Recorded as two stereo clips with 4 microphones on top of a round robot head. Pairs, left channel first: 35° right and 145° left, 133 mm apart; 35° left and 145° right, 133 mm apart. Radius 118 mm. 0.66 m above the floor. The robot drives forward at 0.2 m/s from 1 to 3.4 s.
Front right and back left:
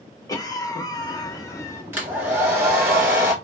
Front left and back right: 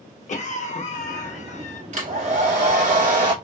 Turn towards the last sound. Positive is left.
turn(degrees=-145)